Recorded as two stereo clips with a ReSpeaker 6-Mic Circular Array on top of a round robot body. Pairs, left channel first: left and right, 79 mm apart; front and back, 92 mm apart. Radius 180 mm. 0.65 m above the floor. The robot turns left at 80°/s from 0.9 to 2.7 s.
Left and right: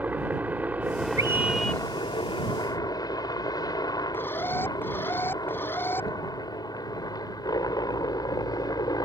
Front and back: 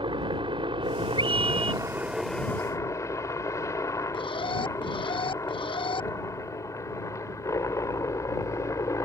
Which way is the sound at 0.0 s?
160° right.